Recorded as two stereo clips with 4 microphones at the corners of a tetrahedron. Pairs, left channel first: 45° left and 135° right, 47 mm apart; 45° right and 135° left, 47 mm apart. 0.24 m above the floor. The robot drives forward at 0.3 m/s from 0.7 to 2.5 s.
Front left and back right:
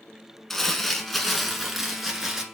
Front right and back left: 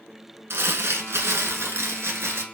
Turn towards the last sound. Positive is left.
turn(degrees=145)